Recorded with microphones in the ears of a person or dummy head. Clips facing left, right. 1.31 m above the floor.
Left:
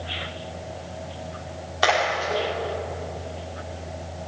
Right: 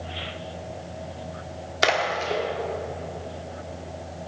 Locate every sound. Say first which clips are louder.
1.8 s a splash: left 1 dB; 35° right (ahead or behind), 3 m